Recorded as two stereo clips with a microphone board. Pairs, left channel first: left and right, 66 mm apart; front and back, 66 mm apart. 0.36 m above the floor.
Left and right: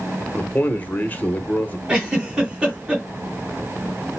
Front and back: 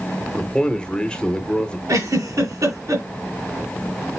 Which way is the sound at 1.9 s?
165° right.